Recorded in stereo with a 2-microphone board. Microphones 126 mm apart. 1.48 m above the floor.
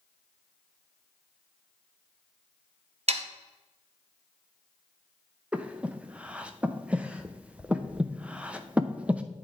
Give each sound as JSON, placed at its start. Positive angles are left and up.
{"t": 3.1, "sound": "sawing", "side_deg": -55, "distance_m": 0.8}
{"t": 5.5, "sound": "breathing", "side_deg": -10, "distance_m": 0.7}